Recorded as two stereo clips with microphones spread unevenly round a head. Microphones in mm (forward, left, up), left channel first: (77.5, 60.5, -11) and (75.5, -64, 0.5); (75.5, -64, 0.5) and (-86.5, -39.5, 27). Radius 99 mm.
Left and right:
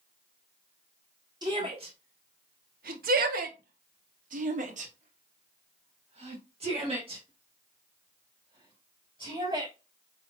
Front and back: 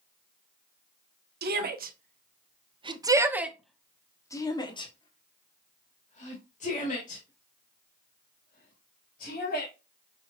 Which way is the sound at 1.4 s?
165° right.